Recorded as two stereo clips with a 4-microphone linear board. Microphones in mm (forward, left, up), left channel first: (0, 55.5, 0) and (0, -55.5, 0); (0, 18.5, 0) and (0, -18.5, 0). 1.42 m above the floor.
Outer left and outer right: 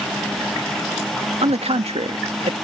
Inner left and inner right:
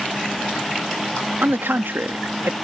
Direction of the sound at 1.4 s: 80° right.